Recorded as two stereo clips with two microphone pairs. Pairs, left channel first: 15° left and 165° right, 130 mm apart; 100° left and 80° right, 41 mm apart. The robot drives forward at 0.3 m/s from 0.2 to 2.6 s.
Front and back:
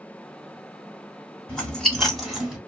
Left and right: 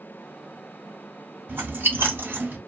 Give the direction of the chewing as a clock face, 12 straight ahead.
2 o'clock.